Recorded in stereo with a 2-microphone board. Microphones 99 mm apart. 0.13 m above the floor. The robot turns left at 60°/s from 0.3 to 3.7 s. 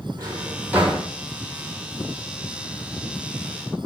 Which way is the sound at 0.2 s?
40° right (ahead or behind).